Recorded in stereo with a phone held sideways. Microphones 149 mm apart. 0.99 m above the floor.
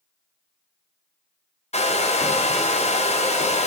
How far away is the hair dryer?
About 0.6 m.